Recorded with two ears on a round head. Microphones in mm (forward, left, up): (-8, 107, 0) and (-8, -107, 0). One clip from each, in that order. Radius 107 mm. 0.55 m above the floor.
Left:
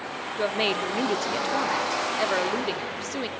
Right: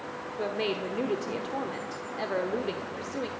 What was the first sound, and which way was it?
A woman speaking, 45° left (ahead or behind).